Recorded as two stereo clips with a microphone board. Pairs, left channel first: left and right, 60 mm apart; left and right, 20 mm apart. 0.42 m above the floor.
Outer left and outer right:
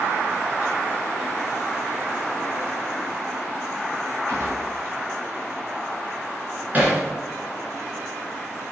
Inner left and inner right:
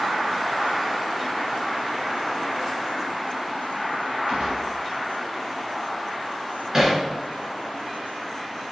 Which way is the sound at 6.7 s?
30° right (ahead or behind).